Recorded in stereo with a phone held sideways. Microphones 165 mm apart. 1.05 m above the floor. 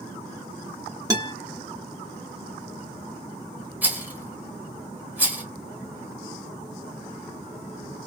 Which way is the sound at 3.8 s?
10° right (ahead or behind).